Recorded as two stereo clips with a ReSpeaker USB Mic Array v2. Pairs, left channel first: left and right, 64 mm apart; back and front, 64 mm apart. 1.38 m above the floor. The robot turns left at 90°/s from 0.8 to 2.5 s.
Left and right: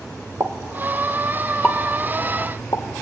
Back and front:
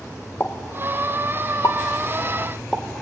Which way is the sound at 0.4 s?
120° right.